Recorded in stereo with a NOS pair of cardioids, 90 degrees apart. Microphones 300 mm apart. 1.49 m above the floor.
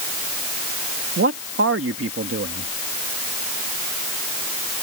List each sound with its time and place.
1.2 s a man speaking: 45° right